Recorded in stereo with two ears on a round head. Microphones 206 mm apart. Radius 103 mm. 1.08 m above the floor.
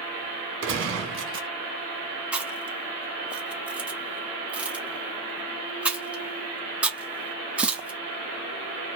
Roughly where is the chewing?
Centre.